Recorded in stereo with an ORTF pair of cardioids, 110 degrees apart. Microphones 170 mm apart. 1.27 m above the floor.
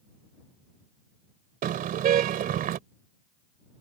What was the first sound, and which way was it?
A car horn, 60° right.